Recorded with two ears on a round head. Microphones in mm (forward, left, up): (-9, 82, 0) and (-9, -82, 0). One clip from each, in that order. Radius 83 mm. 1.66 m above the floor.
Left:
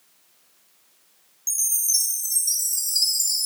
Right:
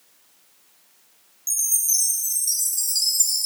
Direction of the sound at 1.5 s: 5° left (ahead or behind).